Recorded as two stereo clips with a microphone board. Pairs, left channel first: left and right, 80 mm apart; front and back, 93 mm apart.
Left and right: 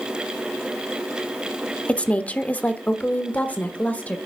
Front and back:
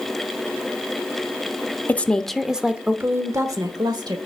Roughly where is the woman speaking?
Ahead left.